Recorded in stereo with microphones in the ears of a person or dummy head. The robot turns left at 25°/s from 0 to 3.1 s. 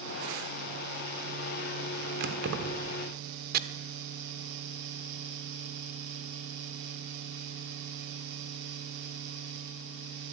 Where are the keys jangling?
65° right (ahead or behind), 2.5 m; by 2.9 s 80° right, 2.5 m.